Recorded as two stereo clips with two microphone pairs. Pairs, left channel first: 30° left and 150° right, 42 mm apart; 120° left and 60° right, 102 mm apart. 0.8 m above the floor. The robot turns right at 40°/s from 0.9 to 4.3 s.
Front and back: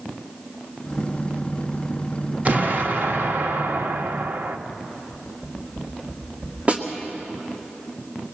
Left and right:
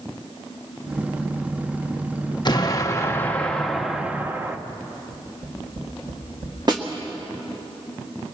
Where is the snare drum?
100° right, 2 m.